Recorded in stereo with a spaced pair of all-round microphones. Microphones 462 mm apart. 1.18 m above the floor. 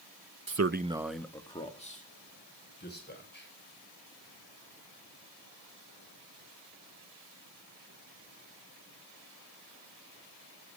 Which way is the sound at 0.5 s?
50° right (ahead or behind).